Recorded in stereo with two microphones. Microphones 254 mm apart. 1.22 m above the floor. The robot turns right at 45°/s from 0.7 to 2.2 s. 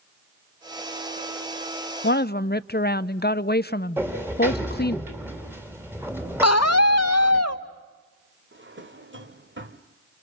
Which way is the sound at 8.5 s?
50° right (ahead or behind).